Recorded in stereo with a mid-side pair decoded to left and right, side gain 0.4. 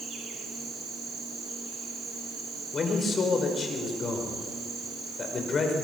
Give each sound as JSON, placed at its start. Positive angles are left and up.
{"t": 0.0, "sound": "an insect", "azimuth_deg": -65, "distance_m": 6.5}
{"t": 2.7, "sound": "a man speaking", "azimuth_deg": 45, "distance_m": 5.5}